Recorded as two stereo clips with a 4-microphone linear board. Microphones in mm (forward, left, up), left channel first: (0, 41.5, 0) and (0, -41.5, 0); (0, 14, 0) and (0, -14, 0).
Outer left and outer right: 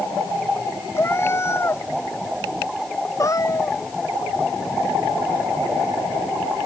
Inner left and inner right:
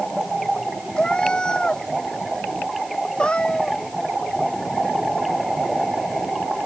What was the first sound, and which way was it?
A cat meowing, 30° left (ahead or behind).